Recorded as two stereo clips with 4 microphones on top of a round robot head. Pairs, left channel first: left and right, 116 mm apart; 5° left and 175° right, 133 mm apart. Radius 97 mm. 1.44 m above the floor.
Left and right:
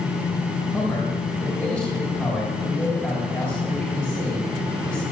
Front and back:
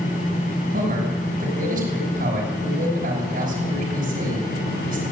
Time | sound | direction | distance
0.7 | a man speaking | 170° left | 6 m